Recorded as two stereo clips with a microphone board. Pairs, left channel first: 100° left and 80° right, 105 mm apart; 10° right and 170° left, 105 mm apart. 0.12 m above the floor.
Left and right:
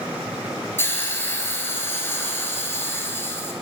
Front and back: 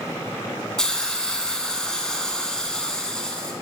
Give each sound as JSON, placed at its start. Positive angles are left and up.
{"t": 0.8, "sound": "a hiss", "azimuth_deg": 65, "distance_m": 1.0}